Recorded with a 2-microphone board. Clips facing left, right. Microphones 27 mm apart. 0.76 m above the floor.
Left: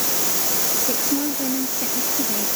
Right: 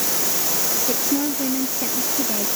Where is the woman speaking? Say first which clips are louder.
Right 2 dB; 10° right (ahead or behind).